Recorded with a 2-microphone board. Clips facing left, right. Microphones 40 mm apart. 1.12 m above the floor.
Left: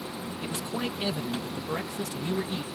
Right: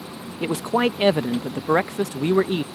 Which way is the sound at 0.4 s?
70° right (ahead or behind).